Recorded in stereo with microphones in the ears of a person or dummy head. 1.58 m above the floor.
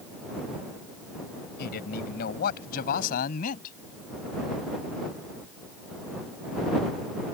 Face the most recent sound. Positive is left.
turn(degrees=50)  # may be behind; listen again after turning